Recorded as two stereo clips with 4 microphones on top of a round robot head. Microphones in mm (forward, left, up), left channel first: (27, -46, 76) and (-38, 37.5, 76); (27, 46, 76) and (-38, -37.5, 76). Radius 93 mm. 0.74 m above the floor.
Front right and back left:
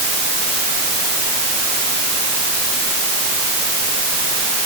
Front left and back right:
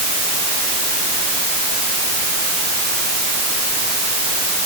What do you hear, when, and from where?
Only background noise.